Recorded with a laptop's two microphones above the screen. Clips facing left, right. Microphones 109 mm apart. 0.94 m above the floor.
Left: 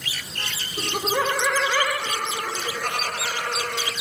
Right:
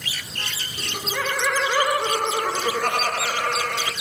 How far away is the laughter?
About 0.8 m.